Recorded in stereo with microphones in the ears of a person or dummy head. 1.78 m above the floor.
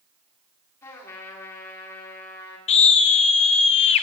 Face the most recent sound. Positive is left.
turn(degrees=35)  # may be behind; listen again after turning